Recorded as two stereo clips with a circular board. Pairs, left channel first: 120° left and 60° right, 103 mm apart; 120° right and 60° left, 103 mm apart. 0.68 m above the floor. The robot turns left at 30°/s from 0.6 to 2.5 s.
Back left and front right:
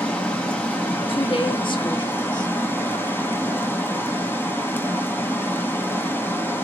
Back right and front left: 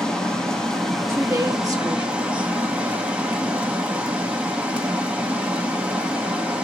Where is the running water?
165° left, 0.9 m; by 6.6 s 110° left, 0.9 m.